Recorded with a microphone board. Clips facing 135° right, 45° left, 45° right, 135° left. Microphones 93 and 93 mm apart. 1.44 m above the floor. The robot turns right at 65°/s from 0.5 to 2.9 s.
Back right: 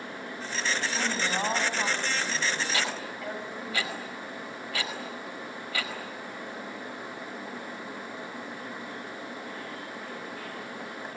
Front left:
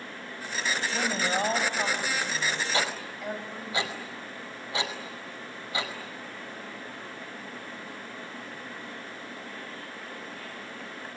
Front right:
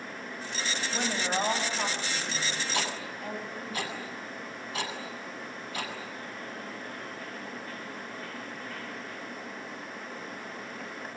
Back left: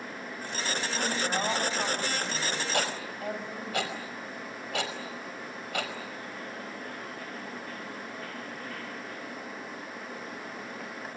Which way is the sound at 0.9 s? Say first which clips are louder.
Front left 1 dB, front right 1 dB; straight ahead.